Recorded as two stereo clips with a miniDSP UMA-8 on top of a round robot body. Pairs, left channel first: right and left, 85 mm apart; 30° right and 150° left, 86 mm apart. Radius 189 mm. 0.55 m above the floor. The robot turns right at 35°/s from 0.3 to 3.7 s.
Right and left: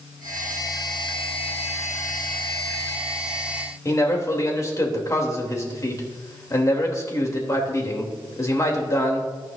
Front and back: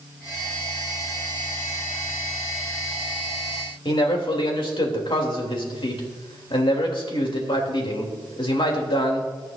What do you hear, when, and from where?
3.9 s a man speaking: 40° right, 3 m